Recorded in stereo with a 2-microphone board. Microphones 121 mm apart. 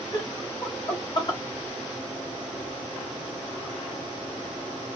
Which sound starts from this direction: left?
Laughter, at 0.1 s.